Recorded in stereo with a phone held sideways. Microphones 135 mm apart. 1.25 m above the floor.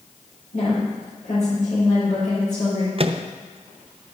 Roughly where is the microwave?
Right.